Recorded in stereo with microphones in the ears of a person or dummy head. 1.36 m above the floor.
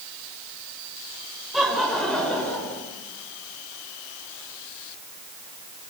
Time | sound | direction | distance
1.5 | laughter | centre (ahead or behind) | 5 m